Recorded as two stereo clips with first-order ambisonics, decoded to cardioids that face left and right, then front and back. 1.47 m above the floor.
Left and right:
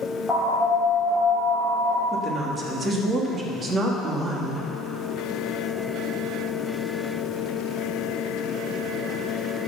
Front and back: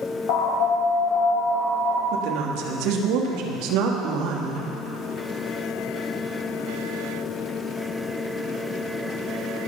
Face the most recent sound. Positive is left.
turn(degrees=-155)